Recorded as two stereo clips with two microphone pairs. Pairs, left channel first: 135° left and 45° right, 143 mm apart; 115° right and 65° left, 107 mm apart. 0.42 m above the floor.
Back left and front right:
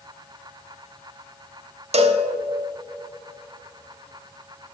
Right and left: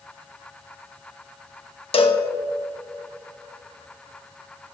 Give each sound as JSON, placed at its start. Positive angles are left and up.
{"t": 1.9, "sound": "a cowbell", "azimuth_deg": -90, "distance_m": 0.8}